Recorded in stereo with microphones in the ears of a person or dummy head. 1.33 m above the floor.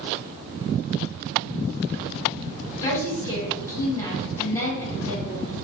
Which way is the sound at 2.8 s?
15° left (ahead or behind).